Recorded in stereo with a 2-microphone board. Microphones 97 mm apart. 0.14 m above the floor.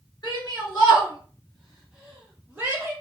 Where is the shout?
40° left (ahead or behind), 1.5 m; by 2.9 s 25° right (ahead or behind), 1.6 m.